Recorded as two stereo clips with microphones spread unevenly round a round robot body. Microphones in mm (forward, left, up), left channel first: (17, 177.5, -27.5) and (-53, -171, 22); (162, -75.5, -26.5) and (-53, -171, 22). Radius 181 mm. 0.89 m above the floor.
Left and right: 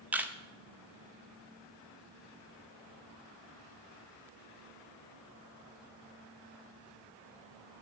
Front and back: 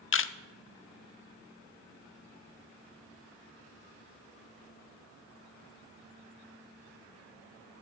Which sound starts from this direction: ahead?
A camera shutter, at 0.1 s.